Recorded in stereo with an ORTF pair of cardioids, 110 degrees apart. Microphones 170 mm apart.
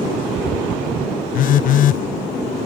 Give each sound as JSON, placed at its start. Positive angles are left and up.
{"t": 1.3, "sound": "a phone buzzing", "azimuth_deg": 55}